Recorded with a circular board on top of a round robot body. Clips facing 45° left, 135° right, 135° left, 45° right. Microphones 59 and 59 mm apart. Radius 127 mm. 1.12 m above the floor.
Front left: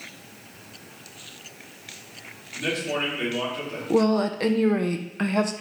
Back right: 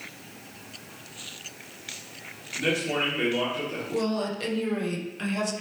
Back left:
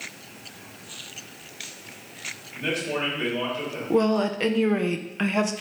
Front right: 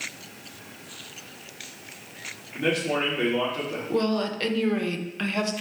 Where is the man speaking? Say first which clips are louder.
Back right 1 dB, front right 3 dB; 55° right, 3 m.